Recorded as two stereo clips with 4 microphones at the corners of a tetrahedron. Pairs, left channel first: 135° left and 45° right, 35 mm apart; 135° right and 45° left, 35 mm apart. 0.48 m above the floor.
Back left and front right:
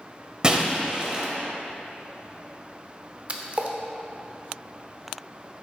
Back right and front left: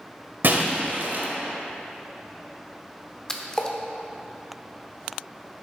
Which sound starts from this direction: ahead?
Breaking glass, at 0.4 s.